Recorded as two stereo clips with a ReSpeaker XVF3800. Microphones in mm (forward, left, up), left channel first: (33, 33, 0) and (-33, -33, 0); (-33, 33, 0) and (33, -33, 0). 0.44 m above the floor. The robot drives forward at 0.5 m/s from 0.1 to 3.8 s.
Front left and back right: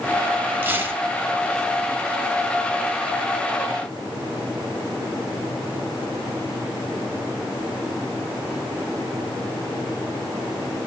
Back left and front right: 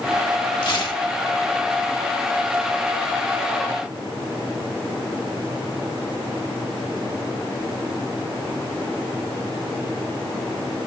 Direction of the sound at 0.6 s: 160° left.